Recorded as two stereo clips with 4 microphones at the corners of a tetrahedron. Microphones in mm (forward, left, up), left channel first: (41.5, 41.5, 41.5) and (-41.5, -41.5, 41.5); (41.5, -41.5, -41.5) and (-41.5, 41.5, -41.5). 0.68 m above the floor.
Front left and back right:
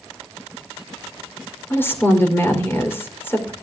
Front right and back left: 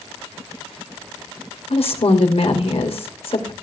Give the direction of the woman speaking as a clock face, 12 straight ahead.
1 o'clock.